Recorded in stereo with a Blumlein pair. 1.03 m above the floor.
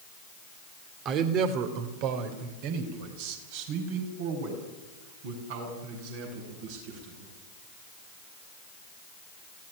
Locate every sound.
1.1 s a man speaking: 35° right, 2.5 m; by 7.3 s 55° right, 10 m